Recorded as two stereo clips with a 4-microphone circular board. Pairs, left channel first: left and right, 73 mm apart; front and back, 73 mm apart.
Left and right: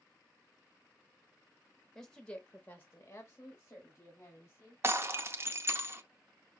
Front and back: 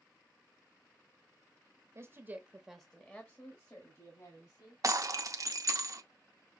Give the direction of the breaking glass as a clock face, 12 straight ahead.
5 o'clock.